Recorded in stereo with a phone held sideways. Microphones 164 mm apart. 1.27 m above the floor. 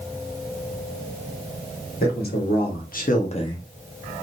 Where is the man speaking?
75° left (ahead or behind), 1.7 m; by 3.7 s 10° left (ahead or behind), 0.5 m.